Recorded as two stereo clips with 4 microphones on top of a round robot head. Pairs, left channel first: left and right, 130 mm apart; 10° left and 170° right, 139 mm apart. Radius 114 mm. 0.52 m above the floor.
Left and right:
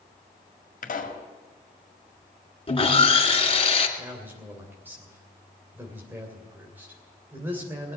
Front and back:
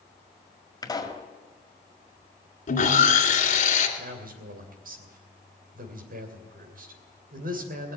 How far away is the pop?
About 2.0 m.